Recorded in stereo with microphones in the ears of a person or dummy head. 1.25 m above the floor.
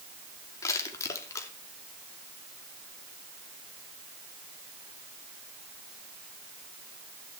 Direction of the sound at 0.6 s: 20° left (ahead or behind).